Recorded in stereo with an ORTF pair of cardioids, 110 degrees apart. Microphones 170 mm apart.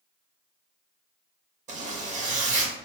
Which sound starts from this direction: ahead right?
A zipper, at 1.7 s.